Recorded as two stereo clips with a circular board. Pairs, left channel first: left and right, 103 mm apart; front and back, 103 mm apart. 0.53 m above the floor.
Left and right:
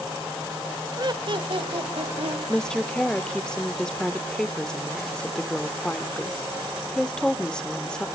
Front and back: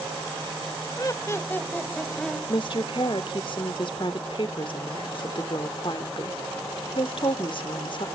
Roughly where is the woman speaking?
Ahead.